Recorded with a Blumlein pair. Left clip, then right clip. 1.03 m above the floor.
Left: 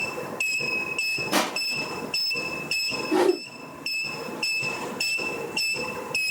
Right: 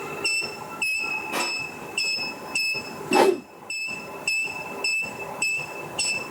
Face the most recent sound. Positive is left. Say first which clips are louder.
# right 4 dB
turn(degrees=-25)